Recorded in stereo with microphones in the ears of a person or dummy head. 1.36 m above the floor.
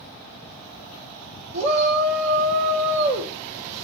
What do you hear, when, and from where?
1.5 s a shout: 60° right (ahead or behind), 2.5 m